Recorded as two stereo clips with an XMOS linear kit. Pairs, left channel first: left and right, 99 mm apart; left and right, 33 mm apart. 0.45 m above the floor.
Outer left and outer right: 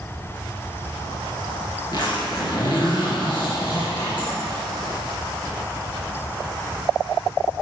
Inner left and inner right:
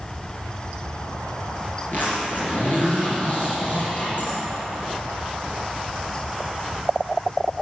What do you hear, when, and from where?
1.9 s a zipper: 55° left (ahead or behind), 3.5 m